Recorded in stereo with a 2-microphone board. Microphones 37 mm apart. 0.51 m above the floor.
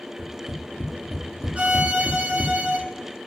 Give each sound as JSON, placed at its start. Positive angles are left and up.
{"t": 0.2, "sound": "tapping", "side_deg": -55, "distance_m": 2.5}
{"t": 1.6, "sound": "a violin", "side_deg": -35, "distance_m": 1.3}